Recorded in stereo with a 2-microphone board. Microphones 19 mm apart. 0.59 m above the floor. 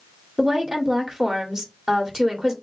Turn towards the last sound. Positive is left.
turn(degrees=-25)  # may be behind; listen again after turning